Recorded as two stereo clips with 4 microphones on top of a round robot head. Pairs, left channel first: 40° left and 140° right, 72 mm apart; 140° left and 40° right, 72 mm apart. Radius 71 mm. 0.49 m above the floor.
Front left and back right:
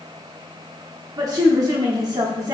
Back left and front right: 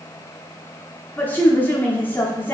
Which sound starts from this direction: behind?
A woman speaking, at 1.2 s.